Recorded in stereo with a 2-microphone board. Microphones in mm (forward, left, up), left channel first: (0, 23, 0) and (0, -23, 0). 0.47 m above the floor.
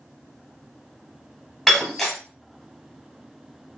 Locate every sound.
1.7 s breaking glass: centre (ahead or behind), 1.1 m